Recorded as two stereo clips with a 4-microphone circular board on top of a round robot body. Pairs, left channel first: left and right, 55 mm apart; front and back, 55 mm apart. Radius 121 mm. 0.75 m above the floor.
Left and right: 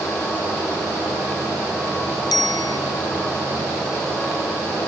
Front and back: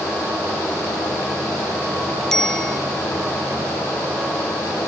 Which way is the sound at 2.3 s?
80° left.